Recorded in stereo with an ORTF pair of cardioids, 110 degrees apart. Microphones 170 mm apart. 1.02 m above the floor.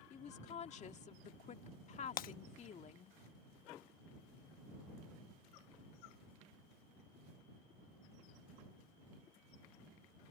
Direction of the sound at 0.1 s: 45° left.